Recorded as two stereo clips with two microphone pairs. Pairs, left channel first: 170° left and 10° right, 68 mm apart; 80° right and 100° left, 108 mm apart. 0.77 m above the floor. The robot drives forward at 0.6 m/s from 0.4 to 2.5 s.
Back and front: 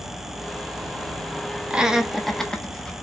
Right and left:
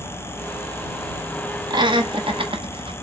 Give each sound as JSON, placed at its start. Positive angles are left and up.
{"t": 1.7, "sound": "laughter", "azimuth_deg": 65, "distance_m": 1.1}